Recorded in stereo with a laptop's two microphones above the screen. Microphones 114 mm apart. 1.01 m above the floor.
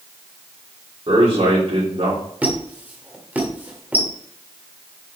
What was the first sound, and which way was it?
A man speaking, 55° right (ahead or behind).